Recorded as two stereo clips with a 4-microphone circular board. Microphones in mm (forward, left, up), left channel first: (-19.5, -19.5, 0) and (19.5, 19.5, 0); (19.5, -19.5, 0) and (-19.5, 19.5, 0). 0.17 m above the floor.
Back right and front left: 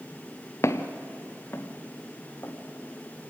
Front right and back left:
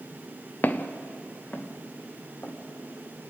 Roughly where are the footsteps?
Right.